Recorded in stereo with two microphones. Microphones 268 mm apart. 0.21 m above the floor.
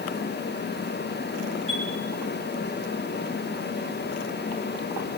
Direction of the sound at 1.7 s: 50° left (ahead or behind).